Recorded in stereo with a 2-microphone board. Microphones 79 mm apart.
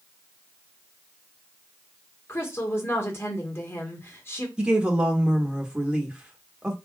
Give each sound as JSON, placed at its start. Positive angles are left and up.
{"t": 2.3, "sound": "a woman speaking", "side_deg": 35, "distance_m": 1.6}
{"t": 4.6, "sound": "a woman speaking", "side_deg": -10, "distance_m": 1.2}